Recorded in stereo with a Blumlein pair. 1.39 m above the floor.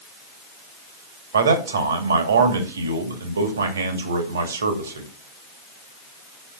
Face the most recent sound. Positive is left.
turn(degrees=-65)